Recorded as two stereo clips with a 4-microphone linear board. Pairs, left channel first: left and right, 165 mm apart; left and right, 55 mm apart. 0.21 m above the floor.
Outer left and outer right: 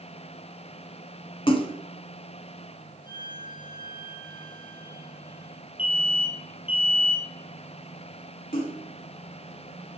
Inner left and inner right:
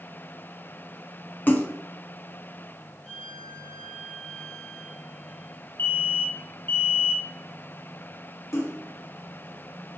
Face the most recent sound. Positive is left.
turn(degrees=65)  # may be behind; listen again after turning